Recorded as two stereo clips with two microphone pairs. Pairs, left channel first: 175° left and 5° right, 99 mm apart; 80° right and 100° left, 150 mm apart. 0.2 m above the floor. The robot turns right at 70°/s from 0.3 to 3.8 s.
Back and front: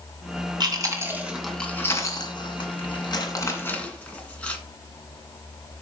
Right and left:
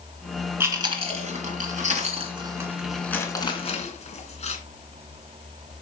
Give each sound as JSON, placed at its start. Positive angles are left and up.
{"t": 0.6, "sound": "chewing", "azimuth_deg": 30, "distance_m": 2.5}